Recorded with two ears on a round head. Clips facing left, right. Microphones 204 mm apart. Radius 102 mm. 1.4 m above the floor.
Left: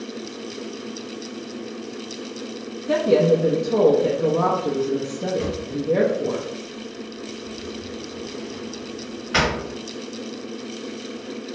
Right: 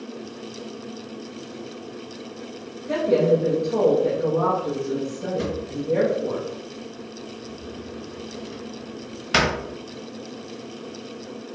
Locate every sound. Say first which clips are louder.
2.9 s a woman speaking: left 2 dB; 55° left (ahead or behind), 0.5 m
5.4 s a drawer: left 2 dB; 55° right (ahead or behind), 1.1 m